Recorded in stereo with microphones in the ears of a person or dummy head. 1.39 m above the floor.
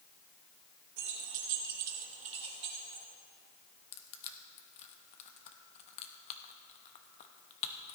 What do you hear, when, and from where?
1.0 s keys jangling: 60° right (ahead or behind), 0.9 m; by 3.0 s 15° right (ahead or behind), 2.5 m
3.9 s crushing: 40° left (ahead or behind), 0.9 m